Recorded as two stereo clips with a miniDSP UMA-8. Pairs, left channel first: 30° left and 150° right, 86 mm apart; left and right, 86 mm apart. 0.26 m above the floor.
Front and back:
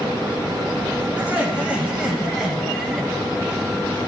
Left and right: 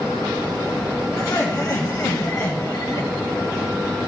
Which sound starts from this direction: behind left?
Laughter, at 1.2 s.